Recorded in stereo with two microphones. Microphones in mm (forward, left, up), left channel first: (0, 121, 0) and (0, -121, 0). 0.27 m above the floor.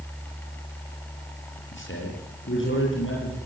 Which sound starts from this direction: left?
A man speaking, at 1.7 s.